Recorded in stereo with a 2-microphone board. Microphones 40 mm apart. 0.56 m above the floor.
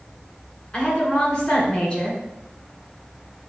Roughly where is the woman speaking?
Left.